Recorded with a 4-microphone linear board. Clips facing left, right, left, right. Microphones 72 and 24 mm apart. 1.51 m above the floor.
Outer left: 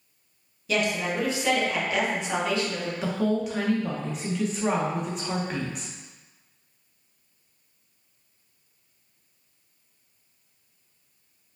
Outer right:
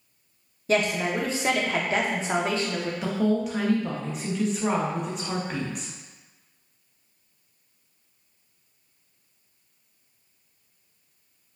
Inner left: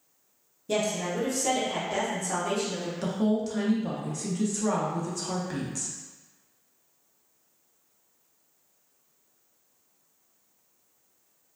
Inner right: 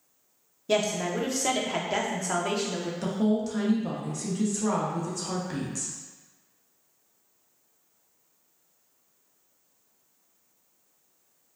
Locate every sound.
0.7 s a woman speaking: 35° right (ahead or behind), 0.7 m
3.0 s a woman speaking: centre (ahead or behind), 0.7 m